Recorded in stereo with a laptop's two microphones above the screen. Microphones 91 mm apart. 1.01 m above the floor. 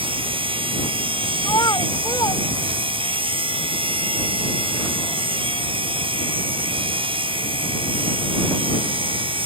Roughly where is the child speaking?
Left.